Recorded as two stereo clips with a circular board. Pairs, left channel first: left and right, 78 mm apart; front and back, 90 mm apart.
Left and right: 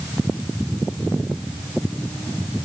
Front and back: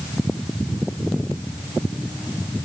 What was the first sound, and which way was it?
Only background noise.